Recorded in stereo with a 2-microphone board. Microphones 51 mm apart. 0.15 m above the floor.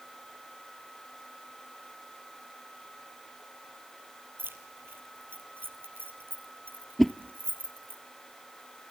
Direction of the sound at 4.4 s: 45° right (ahead or behind).